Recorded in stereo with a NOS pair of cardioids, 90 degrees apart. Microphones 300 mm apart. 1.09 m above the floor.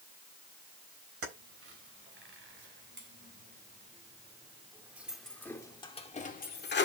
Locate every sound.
1.2 s keys jangling: 50° right, 3.5 m; by 6.9 s 40° left, 1.9 m